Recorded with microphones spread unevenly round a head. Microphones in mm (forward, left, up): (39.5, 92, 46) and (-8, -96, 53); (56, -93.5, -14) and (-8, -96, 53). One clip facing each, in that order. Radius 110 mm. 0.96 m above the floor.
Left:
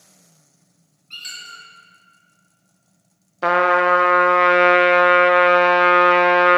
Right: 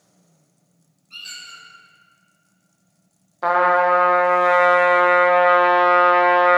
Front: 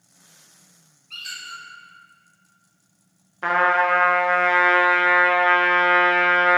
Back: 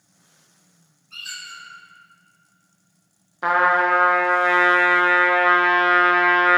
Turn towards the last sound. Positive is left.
turn(degrees=35)